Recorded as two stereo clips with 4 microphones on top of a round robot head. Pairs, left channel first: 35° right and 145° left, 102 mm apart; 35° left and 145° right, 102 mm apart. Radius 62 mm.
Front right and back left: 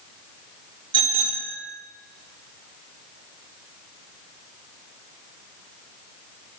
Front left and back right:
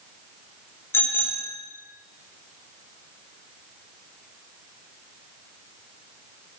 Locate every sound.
0.9 s a bicycle bell: 100° left, 2.5 m